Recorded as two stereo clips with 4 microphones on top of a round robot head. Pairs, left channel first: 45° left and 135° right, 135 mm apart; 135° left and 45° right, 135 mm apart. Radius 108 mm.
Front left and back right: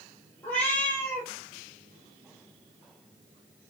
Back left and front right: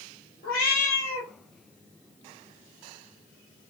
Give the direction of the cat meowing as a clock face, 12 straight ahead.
8 o'clock.